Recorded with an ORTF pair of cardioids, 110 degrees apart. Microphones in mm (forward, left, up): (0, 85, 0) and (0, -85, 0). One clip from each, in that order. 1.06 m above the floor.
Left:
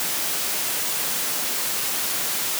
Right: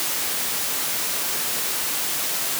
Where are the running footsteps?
I don't hear running footsteps.